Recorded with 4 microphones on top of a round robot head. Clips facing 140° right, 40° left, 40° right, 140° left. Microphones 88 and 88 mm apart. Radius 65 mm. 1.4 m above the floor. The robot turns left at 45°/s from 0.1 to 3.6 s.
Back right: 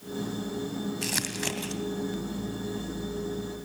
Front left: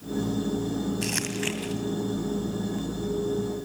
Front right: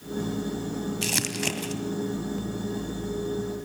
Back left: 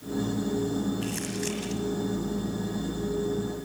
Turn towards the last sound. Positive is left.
turn(degrees=-170)